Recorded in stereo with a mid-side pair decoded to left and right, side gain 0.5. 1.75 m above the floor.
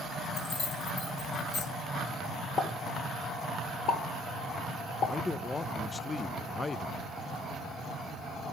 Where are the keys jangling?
60° left, 3 m; by 1.6 s 75° left, 4.5 m.